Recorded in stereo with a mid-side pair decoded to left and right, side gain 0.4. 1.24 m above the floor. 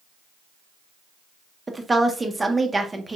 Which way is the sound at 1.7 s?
25° right.